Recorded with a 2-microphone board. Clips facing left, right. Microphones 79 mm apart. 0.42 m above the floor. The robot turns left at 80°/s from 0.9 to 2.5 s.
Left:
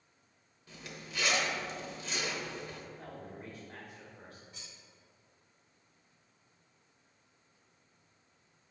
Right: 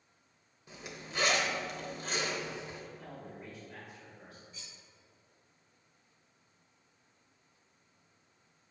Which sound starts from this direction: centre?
A zipper, at 0.7 s.